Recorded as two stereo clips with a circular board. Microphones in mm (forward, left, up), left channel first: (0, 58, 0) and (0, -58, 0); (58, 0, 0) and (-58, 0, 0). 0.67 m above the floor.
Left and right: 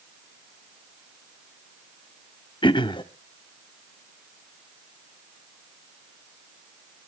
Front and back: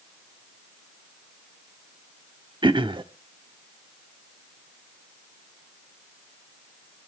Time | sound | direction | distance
2.6 | throat clearing | 135° left | 0.8 m